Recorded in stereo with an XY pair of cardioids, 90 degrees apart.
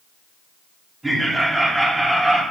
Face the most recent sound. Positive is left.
turn(degrees=-10)